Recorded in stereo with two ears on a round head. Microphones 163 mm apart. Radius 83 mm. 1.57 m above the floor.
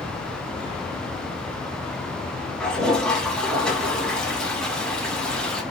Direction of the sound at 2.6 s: 5° left (ahead or behind).